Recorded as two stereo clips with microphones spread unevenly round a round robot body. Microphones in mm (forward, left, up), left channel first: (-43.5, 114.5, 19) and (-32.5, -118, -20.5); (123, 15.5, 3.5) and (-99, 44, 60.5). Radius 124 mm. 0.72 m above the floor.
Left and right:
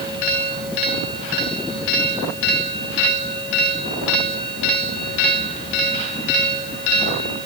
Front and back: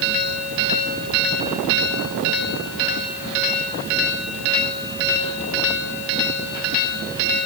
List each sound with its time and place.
Only background noise.